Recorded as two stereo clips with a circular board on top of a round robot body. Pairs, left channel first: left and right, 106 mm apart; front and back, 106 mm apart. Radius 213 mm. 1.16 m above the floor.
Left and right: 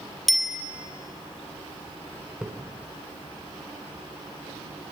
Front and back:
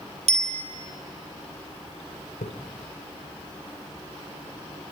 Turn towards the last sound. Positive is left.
turn(degrees=-5)